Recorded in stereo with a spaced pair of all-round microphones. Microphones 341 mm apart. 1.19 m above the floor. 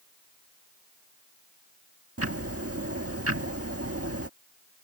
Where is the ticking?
45° right (ahead or behind).